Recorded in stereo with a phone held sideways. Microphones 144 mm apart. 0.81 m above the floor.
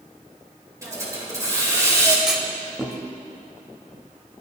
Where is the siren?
No siren in this recording.